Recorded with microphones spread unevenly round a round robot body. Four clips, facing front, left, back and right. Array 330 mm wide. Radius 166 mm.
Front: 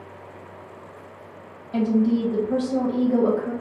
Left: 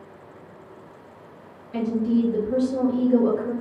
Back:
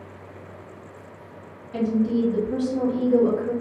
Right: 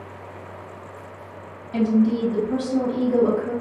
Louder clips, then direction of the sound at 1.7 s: Right 3 dB, front 2 dB; 15° right.